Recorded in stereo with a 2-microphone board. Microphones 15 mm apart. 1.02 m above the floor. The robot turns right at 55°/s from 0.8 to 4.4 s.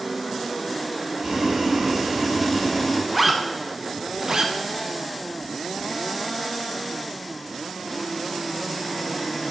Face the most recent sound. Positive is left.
turn(degrees=-45)  # may be behind; listen again after turning